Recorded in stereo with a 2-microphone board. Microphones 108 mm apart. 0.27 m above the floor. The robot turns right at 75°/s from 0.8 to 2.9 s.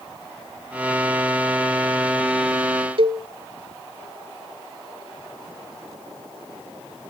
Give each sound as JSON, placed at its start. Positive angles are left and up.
{"t": 3.0, "sound": "a cowbell", "side_deg": -55, "distance_m": 0.6}